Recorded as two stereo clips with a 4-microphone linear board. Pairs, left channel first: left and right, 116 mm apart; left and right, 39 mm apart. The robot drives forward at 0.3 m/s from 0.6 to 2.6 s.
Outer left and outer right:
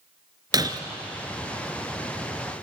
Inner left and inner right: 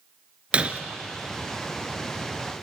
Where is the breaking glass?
35° right (ahead or behind), 1.5 m.